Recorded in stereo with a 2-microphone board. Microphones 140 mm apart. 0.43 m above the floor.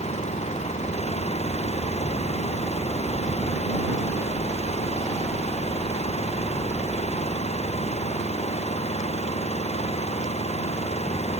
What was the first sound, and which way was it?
An engine running, 50° left (ahead or behind).